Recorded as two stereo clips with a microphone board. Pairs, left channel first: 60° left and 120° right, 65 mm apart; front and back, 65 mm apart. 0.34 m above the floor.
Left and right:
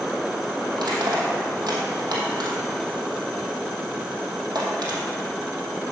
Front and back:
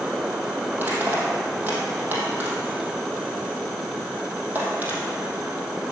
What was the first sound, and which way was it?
Crushing, 120° right.